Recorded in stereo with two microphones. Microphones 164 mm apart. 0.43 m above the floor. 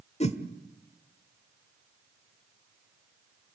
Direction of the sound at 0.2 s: 40° left (ahead or behind).